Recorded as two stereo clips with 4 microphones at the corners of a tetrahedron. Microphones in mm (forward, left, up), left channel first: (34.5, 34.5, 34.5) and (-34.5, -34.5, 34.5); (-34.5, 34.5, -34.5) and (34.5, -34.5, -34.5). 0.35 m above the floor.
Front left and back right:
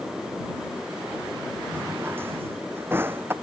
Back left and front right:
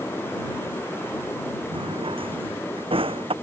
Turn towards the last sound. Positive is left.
turn(degrees=-65)